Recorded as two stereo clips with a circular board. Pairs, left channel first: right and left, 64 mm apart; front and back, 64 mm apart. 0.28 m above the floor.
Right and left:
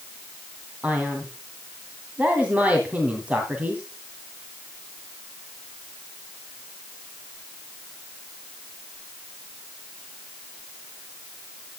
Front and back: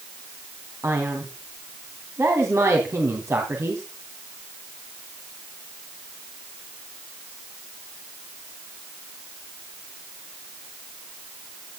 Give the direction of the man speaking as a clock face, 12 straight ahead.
7 o'clock.